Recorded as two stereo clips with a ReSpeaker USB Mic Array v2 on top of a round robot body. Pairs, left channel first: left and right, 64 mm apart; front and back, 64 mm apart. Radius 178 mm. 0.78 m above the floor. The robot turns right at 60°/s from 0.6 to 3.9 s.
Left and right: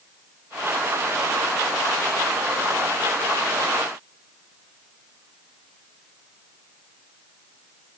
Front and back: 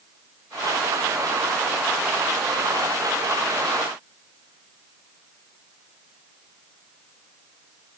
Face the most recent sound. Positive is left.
No sound to turn to.